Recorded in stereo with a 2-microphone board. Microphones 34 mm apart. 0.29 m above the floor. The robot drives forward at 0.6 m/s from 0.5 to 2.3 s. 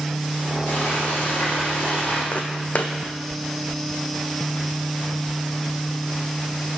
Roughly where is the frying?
Left.